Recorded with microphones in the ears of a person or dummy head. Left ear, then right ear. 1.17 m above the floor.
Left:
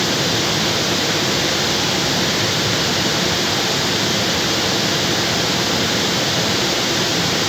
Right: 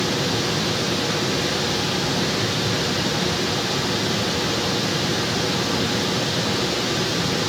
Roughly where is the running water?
Centre.